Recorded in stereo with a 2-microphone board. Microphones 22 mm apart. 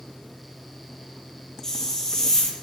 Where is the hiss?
25° left (ahead or behind), 5.5 m.